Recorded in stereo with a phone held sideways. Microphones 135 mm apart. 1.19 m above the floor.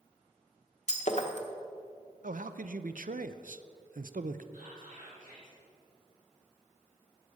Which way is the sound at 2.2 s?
80° right.